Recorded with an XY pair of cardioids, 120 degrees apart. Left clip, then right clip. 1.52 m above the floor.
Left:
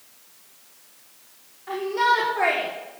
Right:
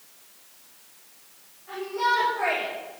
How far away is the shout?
About 5 m.